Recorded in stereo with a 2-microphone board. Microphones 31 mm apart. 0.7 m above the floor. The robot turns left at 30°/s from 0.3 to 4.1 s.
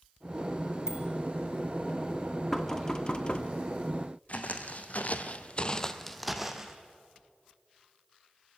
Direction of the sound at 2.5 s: 15° left (ahead or behind).